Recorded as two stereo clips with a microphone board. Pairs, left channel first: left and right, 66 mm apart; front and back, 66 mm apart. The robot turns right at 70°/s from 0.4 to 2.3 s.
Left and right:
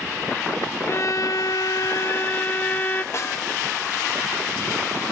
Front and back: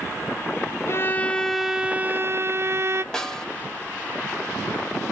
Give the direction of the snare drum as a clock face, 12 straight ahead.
9 o'clock.